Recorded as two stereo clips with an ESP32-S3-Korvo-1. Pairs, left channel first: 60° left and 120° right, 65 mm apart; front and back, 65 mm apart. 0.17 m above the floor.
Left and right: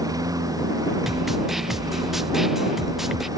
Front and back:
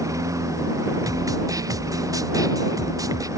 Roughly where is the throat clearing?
I don't hear throat clearing.